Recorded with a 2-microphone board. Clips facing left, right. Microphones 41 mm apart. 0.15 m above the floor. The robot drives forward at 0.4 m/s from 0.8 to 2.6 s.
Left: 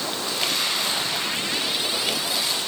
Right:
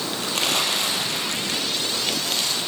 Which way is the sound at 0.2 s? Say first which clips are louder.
Right 3 dB; 70° right (ahead or behind).